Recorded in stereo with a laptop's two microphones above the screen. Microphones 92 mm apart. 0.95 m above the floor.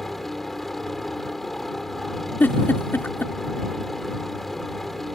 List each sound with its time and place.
0.0 s a helicopter: centre (ahead or behind)
2.4 s a giggle: 20° left (ahead or behind)